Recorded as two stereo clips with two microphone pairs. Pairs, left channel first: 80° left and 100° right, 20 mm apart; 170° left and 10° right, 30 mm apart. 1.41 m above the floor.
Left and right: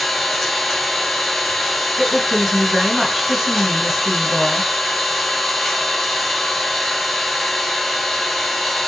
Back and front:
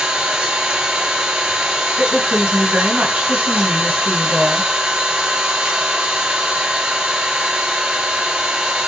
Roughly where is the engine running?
Ahead.